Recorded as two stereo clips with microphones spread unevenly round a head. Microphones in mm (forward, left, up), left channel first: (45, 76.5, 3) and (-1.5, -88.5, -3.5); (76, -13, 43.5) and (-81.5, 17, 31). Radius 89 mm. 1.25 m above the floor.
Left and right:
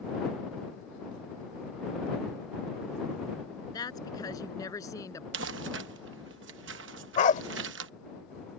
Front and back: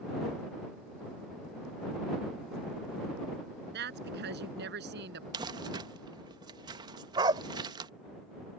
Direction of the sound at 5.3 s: 125° right.